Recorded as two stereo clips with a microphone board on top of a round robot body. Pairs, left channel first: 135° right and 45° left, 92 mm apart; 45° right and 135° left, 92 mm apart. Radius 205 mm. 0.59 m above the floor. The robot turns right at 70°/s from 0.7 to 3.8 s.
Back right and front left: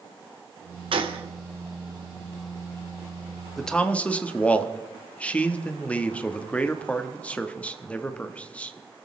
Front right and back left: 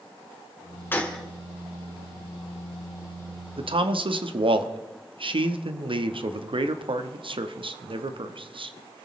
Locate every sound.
0.9 s a gunshot: 25° left, 1.6 m; by 1.2 s 45° left, 1.6 m
3.6 s a man speaking: 135° left, 1.3 m; by 9.1 s 150° left, 1.3 m